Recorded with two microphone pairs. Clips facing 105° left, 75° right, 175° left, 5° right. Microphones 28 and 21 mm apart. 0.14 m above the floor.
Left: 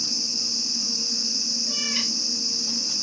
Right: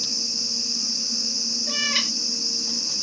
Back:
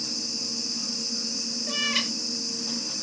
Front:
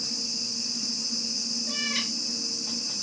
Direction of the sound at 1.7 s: 110° right.